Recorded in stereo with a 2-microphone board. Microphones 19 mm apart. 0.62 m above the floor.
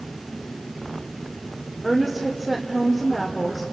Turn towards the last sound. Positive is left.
turn(degrees=10)  # may be behind; listen again after turning